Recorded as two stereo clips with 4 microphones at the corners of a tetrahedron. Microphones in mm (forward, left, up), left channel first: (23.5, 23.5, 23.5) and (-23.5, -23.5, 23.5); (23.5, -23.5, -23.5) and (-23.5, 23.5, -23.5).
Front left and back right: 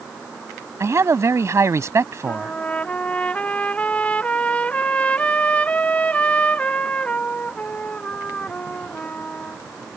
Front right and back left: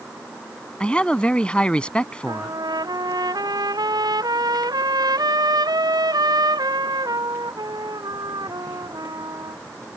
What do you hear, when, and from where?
0.8 s a man speaking: 115° right
2.3 s a trumpet: 115° left